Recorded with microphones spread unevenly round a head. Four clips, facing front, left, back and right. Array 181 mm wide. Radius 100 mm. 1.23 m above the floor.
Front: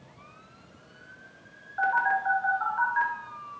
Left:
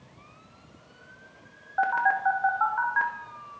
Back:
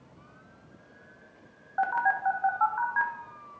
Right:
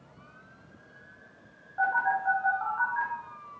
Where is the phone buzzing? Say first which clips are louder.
Left 3 dB, front 1 dB; 105° left, 1.7 m.